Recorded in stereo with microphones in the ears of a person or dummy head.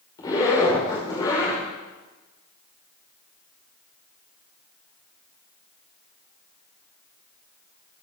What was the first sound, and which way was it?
A zipper, 30° left (ahead or behind).